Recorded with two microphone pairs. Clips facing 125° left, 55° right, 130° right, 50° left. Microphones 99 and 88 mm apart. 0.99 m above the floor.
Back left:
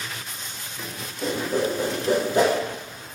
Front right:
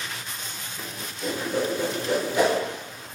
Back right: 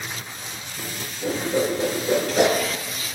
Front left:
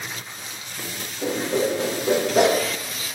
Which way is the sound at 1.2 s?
75° left.